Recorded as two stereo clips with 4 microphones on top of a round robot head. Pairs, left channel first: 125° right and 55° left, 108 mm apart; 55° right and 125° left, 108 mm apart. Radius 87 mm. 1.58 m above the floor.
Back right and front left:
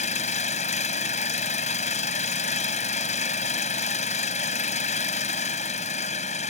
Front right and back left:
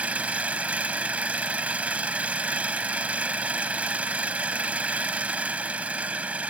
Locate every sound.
0.0 s an engine running: 155° right